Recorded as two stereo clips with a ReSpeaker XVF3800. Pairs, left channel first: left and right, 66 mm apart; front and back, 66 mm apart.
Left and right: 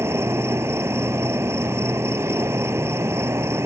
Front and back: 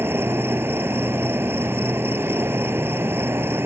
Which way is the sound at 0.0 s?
130° right.